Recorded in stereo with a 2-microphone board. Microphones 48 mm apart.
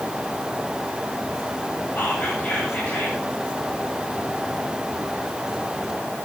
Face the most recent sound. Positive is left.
turn(degrees=35)  # may be behind; listen again after turning